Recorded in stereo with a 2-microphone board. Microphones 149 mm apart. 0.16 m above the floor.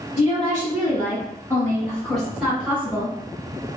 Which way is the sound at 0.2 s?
40° left (ahead or behind).